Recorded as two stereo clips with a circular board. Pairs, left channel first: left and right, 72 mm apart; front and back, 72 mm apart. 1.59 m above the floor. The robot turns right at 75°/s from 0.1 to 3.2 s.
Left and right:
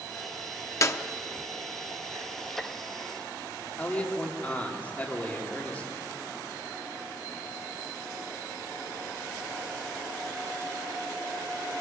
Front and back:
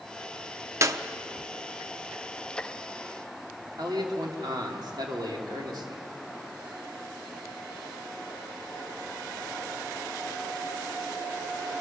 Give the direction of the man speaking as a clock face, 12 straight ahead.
7 o'clock.